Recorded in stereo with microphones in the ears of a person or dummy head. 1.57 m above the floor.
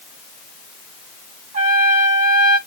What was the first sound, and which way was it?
A trumpet, 40° right (ahead or behind).